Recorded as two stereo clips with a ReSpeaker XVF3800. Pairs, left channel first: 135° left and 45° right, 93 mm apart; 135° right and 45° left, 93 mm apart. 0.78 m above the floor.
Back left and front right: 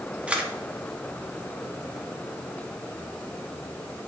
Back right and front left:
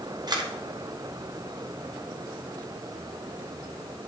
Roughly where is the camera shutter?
Ahead left.